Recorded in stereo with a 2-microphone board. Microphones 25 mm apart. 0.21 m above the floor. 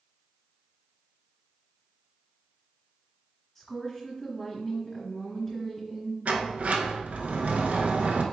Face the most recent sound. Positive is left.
turn(degrees=-80)